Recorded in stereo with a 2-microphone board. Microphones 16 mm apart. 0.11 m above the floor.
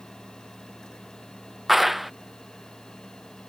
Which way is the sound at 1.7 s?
10° right (ahead or behind).